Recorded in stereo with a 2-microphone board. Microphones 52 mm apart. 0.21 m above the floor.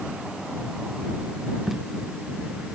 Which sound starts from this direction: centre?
Tape being pulled, at 1.7 s.